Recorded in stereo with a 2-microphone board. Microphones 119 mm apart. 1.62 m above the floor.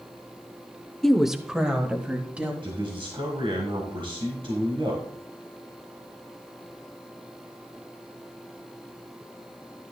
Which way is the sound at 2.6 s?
50° right (ahead or behind).